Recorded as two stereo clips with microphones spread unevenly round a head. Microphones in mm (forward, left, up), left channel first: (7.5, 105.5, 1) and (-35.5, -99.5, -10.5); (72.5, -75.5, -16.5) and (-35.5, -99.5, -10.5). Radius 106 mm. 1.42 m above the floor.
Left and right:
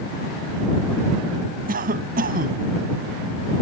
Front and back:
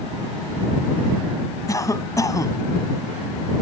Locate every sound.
1.7 s a cough: 50° right